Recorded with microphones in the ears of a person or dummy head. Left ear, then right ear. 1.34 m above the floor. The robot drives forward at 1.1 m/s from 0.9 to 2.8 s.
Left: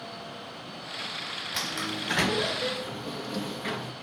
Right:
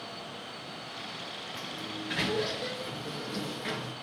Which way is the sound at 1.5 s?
65° left (ahead or behind).